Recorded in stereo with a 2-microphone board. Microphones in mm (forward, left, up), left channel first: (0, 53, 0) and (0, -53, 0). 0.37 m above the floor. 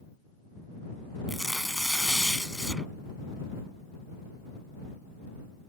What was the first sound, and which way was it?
Tearing paper, centre (ahead or behind).